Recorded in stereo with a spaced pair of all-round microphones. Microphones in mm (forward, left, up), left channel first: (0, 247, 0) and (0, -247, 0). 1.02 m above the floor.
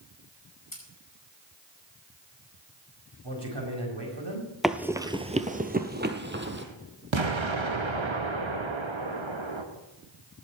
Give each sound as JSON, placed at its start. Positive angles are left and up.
{"t": 0.7, "sound": "scissors", "side_deg": 40, "distance_m": 5.5}
{"t": 3.2, "sound": "a man speaking", "side_deg": -55, "distance_m": 5.0}
{"t": 4.6, "sound": "running footsteps", "side_deg": 0, "distance_m": 1.0}
{"t": 7.1, "sound": "an explosion", "side_deg": -65, "distance_m": 1.4}